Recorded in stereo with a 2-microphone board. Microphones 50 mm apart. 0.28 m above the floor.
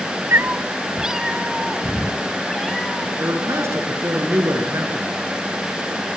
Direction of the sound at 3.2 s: 55° right (ahead or behind).